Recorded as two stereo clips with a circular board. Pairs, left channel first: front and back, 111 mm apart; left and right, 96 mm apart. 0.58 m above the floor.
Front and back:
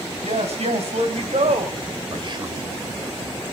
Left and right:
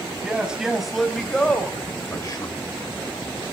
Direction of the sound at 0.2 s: 170° right.